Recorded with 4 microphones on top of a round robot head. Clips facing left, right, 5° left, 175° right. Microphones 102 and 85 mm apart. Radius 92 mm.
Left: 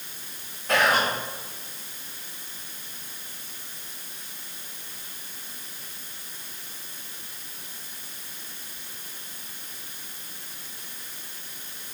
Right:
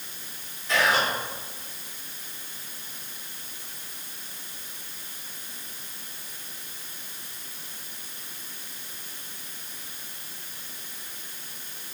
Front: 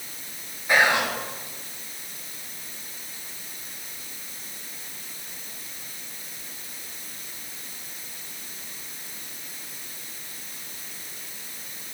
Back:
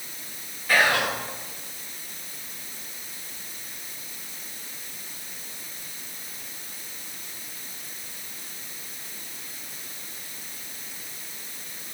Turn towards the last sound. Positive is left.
turn(degrees=70)